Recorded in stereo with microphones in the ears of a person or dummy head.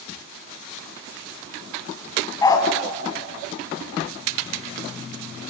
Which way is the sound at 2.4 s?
20° left (ahead or behind).